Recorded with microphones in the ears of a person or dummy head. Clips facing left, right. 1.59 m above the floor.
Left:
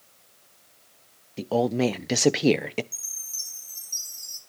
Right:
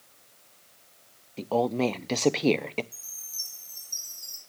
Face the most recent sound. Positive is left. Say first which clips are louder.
# left 1 dB
turn(degrees=5)  # may be behind; listen again after turning